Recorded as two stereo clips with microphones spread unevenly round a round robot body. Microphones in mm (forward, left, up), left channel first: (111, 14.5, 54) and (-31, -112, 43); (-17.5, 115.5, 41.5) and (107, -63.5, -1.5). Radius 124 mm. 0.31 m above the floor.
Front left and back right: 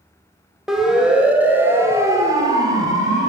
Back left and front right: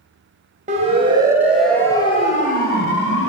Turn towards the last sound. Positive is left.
turn(degrees=155)